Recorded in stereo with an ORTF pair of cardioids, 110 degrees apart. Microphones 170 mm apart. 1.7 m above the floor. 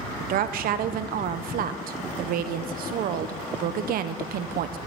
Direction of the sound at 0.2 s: 65° right.